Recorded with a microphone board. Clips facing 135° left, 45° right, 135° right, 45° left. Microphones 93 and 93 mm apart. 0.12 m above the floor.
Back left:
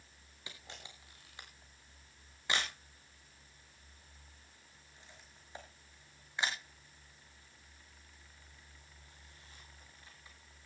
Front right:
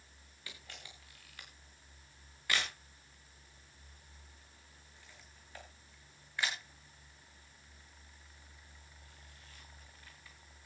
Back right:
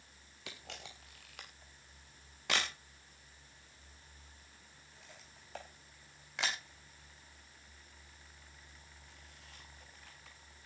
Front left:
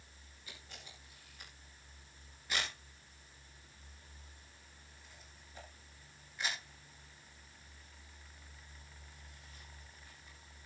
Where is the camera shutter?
155° right, 4.5 m.